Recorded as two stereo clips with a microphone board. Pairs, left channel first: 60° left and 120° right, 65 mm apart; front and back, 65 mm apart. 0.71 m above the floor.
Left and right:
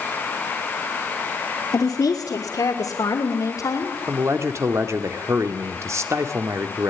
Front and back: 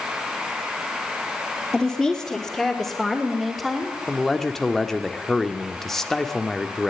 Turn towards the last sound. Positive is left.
turn(degrees=-85)